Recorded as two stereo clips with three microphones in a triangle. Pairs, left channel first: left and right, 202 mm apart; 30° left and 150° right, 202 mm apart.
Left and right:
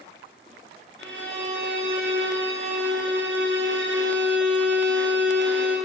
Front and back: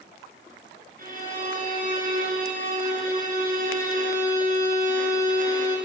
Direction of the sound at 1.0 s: 105° right.